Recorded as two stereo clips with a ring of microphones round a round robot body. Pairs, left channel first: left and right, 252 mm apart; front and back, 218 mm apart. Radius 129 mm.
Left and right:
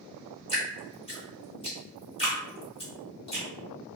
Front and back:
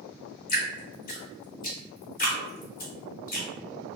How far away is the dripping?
About 1.3 m.